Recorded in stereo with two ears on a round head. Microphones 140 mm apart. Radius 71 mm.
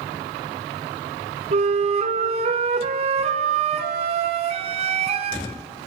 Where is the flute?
45° right (ahead or behind), 1.7 m.